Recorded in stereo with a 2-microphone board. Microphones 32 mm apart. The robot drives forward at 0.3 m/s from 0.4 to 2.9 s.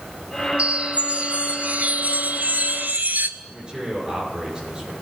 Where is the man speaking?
25° right (ahead or behind), 6.5 m.